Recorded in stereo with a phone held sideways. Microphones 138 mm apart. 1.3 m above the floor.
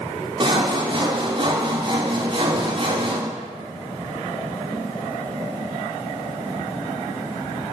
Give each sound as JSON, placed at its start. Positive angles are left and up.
{"t": 0.4, "sound": "sawing", "side_deg": -40, "distance_m": 3.5}